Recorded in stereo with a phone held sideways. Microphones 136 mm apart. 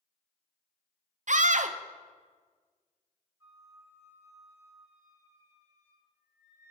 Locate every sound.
1.3 s a scream: 65° right (ahead or behind), 0.5 m
3.4 s a flute: 20° right (ahead or behind), 1.3 m